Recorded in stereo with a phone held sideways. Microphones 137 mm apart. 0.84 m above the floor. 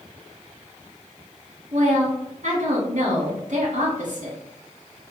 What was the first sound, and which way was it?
A woman speaking, 65° right (ahead or behind).